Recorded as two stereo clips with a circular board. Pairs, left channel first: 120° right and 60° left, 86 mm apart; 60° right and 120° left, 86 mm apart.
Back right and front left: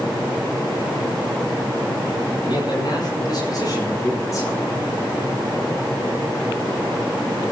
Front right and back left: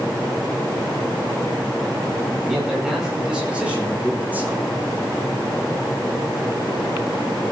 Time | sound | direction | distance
2.4 | a man speaking | 155° right | 9.5 m